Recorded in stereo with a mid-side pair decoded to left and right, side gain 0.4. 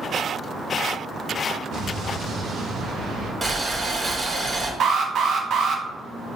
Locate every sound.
1.7 s an explosion: 70° right, 1.1 m
3.4 s boiling: 30° right, 1.2 m
4.8 s an alarm: 65° right, 0.7 m